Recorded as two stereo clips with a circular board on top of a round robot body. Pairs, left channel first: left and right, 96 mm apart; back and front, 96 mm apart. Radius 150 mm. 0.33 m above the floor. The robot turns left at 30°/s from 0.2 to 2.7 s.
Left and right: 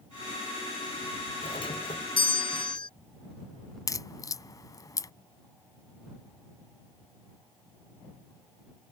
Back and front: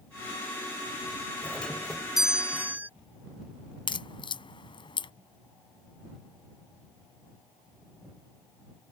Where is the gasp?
I don't hear a gasp.